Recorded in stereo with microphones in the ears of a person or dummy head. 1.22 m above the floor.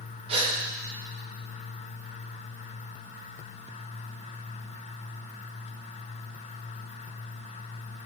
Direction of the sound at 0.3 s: 35° right (ahead or behind).